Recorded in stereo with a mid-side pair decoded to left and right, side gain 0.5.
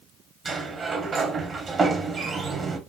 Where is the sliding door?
40° right, 1.1 m.